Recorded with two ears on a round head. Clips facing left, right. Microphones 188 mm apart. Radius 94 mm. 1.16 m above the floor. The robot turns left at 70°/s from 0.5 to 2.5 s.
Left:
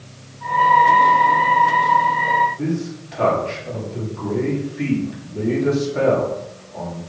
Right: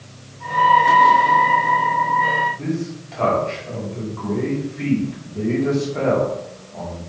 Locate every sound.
2.6 s a man speaking: 20° left (ahead or behind), 3.5 m